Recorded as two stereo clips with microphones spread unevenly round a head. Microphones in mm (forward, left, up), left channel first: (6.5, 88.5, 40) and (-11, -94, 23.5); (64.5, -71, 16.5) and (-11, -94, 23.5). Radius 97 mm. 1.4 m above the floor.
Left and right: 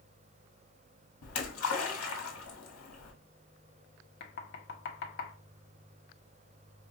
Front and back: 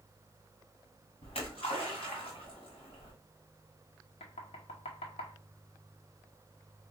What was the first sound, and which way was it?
A splash, 75° left.